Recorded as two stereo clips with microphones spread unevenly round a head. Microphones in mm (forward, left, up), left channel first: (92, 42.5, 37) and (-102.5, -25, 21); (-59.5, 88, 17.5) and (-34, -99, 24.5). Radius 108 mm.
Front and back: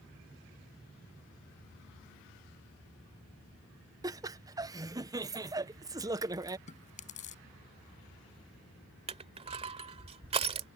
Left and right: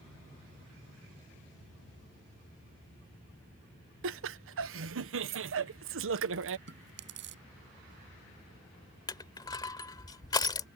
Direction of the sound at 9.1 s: 155° left.